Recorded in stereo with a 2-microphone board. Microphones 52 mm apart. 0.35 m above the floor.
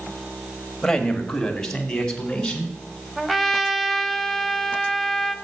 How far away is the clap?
No clap in this recording.